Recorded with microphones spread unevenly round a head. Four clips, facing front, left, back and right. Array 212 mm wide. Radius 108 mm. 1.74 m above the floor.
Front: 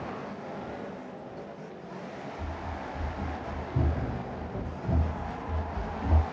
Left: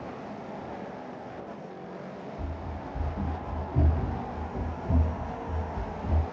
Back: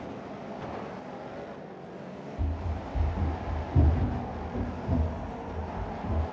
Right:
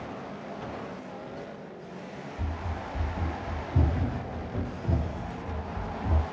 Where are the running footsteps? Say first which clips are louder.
Right 1 dB, even; 155° right, 2.5 m; by 6.2 s 25° right, 2.5 m.